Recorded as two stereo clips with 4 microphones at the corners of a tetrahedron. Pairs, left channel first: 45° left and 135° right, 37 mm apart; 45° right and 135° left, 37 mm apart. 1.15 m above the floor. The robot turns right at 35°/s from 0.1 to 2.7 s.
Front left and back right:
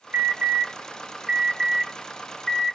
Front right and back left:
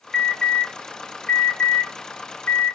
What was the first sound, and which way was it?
An alarm, 120° right.